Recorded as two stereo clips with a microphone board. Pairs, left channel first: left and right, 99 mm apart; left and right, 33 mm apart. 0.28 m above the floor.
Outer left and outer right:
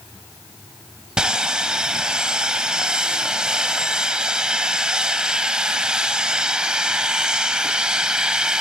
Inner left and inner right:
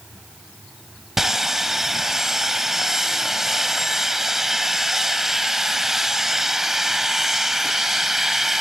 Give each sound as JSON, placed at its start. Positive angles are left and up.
{"t": 1.2, "sound": "sawing", "side_deg": -10, "distance_m": 0.7}